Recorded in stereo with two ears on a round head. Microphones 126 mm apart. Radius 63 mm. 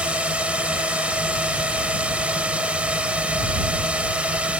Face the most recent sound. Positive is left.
turn(degrees=-10)  # may be behind; listen again after turning